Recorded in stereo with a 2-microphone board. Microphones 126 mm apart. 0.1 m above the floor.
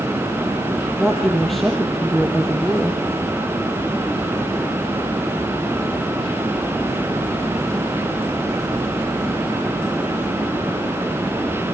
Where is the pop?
I don't hear a pop.